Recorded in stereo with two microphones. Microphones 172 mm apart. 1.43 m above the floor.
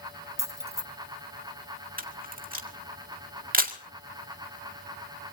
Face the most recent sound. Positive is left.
turn(degrees=-50)  # may be behind; listen again after turning